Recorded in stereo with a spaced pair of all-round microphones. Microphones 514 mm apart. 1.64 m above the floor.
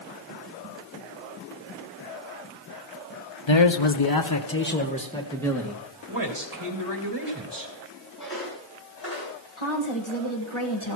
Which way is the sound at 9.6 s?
65° left (ahead or behind).